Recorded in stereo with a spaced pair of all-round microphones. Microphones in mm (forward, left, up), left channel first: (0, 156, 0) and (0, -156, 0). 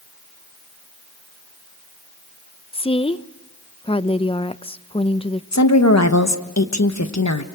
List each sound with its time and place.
2.7 s a woman speaking: 20° left (ahead or behind), 0.6 m
5.5 s a woman speaking: 60° left (ahead or behind), 1.3 m